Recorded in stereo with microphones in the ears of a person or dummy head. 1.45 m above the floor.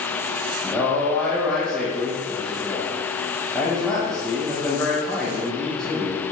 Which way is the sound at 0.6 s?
Centre (ahead or behind).